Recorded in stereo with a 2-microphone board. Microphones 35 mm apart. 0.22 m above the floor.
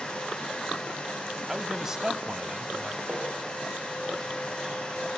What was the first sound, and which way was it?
A man speaking, 15° right (ahead or behind).